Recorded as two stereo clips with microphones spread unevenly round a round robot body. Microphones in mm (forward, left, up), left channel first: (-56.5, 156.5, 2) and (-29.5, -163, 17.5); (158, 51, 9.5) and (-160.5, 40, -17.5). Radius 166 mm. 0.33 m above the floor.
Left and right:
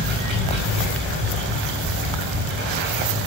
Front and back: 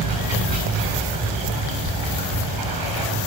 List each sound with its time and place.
0.0 s running water: 145° right, 6 m